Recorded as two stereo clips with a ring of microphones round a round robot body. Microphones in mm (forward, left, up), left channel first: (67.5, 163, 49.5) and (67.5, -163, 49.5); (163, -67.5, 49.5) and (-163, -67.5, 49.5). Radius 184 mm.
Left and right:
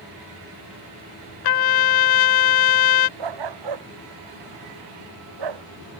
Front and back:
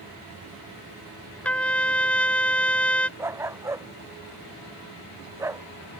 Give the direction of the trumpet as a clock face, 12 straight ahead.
9 o'clock.